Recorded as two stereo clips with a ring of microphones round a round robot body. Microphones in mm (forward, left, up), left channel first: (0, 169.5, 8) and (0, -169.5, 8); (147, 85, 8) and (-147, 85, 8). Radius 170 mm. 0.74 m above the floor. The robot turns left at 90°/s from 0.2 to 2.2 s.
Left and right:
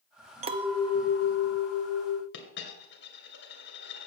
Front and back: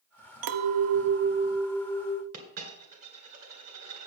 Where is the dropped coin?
150° left, 2.5 m.